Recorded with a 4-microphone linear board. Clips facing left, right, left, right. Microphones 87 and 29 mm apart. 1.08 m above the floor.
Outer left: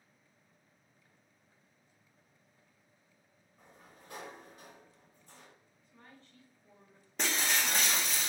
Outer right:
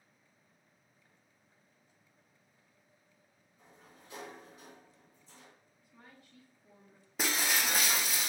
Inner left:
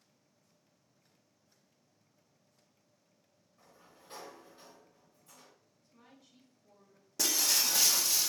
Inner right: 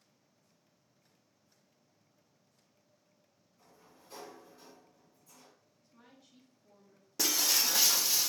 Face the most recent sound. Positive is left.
turn(degrees=-5)  # may be behind; listen again after turning